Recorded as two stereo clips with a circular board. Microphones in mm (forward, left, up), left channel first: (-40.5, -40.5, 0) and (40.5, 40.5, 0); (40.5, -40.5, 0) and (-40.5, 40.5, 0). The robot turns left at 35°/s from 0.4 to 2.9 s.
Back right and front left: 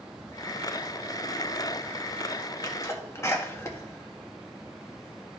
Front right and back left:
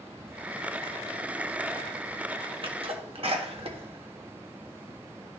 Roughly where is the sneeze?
Behind.